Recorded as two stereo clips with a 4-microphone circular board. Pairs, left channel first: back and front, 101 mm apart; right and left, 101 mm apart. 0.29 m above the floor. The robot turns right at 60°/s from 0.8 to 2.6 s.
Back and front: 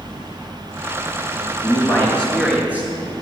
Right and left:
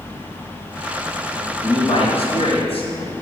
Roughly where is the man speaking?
Behind right.